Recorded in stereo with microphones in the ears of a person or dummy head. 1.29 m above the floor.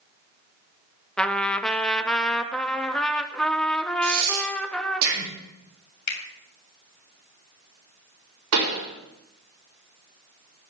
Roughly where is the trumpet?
Centre.